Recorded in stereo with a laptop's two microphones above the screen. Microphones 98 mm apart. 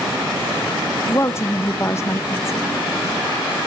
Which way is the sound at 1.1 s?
30° left (ahead or behind).